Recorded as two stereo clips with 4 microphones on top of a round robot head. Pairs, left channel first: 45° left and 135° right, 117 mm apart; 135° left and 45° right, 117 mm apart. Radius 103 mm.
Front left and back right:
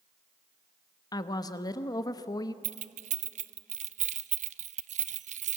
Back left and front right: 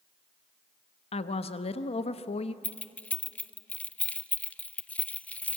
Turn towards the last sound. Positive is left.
turn(degrees=-145)